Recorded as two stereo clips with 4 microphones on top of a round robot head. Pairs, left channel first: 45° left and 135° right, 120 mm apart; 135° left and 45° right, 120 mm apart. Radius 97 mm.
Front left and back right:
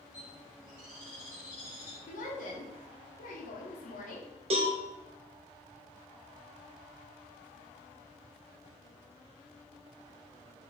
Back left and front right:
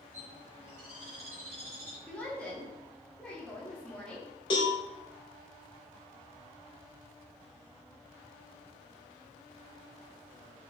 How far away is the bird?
About 1.9 m.